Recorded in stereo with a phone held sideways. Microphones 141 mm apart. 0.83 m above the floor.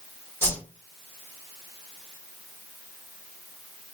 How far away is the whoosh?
About 1.9 m.